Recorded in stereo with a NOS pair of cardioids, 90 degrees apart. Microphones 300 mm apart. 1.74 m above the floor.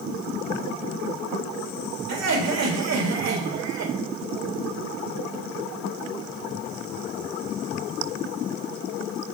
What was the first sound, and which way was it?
Laughter, 65° right.